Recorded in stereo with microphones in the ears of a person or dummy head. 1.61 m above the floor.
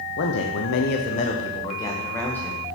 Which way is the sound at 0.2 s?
65° left (ahead or behind).